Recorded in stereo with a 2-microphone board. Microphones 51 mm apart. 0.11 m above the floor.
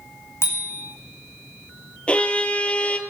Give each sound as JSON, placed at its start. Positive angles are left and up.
{"t": 0.4, "sound": "a bicycle bell", "side_deg": 55, "distance_m": 6.0}
{"t": 2.1, "sound": "a violin", "side_deg": 20, "distance_m": 1.9}